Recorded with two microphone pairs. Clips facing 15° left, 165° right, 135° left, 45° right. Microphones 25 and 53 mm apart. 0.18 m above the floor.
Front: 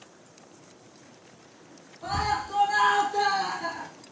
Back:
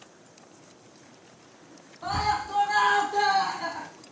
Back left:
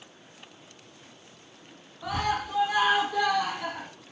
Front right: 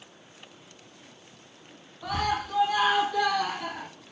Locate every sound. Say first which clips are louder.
2.0 s a scream: back 1 dB, even; 145° right, 1.4 m